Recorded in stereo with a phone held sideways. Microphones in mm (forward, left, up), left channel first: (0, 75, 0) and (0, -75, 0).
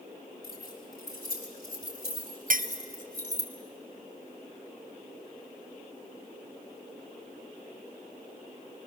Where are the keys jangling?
85° left, 6.5 m; by 3.5 s 75° left (ahead or behind), 3 m.